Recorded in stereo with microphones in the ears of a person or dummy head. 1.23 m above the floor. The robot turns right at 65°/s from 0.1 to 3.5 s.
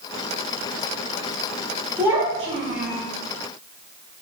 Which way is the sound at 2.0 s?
Straight behind.